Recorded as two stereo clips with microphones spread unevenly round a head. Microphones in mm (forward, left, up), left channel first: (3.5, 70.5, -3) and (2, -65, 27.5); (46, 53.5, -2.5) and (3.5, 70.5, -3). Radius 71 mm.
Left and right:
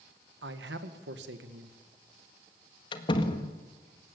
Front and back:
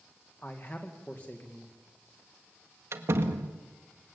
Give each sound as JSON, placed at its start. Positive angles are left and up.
{"t": 0.4, "sound": "a man speaking", "azimuth_deg": -100, "distance_m": 2.0}
{"t": 2.9, "sound": "a door slam", "azimuth_deg": 150, "distance_m": 1.6}